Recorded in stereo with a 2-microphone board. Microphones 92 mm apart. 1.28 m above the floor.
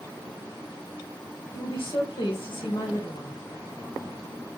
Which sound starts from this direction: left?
A woman speaking, at 1.5 s.